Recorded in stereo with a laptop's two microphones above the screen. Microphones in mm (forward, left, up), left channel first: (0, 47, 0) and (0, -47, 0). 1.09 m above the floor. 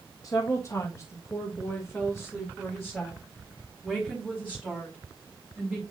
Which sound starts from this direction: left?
A woman speaking, at 0.2 s.